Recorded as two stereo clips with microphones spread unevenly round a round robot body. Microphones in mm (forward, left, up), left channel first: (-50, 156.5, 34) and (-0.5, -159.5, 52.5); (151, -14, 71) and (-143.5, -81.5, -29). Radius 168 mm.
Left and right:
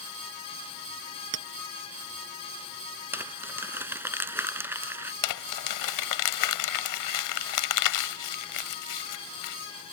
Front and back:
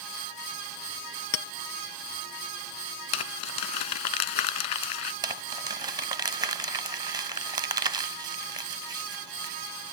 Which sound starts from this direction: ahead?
Crumpling, at 3.1 s.